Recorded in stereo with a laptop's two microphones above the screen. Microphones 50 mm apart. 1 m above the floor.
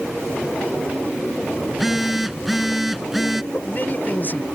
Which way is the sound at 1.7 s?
5° right (ahead or behind).